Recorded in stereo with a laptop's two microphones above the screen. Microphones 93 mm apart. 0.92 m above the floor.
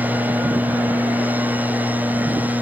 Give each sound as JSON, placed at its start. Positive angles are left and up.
{"t": 0.0, "sound": "a machine running", "side_deg": -15}